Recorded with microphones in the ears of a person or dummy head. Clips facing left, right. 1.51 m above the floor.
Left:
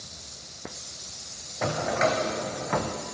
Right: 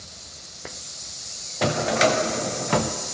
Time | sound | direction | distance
1.6 | a drawer | 40° right (ahead or behind) | 0.7 m